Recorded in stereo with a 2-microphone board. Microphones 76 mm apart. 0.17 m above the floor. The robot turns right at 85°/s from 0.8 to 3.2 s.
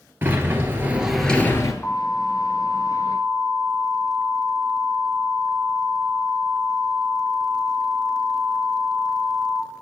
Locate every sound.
0.2 s a sliding door: 30° right, 0.9 m; by 1.7 s 50° left, 0.9 m
1.8 s an alarm: 140° left, 1.9 m; by 9.6 s 105° right, 1.9 m